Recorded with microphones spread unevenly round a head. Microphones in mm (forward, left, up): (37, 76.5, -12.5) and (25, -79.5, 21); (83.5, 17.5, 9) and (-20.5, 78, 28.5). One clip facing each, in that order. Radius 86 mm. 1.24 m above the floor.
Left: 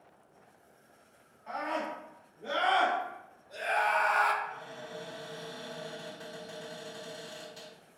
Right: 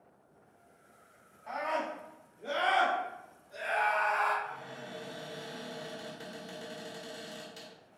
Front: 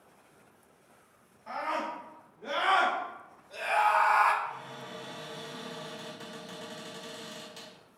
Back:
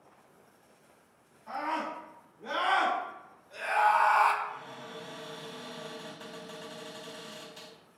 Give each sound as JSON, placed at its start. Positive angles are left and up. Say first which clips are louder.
{"t": 1.5, "sound": "a scream", "louder": "even, even", "azimuth_deg": -10, "distance_m": 1.4}
{"t": 4.4, "sound": "a cupboard door", "louder": "even, front 1 dB", "azimuth_deg": -30, "distance_m": 1.3}